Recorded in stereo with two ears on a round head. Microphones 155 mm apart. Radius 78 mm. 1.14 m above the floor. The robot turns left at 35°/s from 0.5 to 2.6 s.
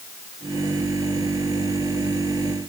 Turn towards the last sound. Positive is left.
No sound to turn to.